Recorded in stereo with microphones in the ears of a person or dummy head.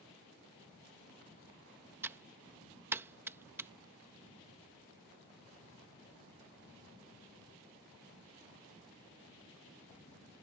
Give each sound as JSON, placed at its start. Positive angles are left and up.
{"t": 2.0, "sound": "typing on a keyboard", "side_deg": -10}